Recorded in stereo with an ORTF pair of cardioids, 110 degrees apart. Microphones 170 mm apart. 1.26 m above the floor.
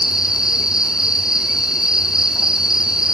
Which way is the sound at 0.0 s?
5° right.